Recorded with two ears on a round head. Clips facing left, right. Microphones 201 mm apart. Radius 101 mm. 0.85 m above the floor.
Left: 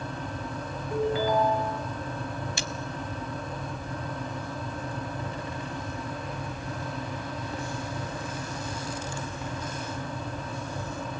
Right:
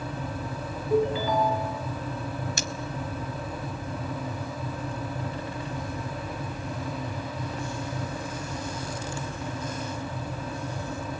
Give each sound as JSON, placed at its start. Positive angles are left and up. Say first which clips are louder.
{"t": 0.9, "sound": "a ringtone", "louder": "right 2 dB", "side_deg": -75, "distance_m": 4.5}
{"t": 2.6, "sound": "cutlery clinking", "louder": "right 2 dB", "side_deg": -40, "distance_m": 1.1}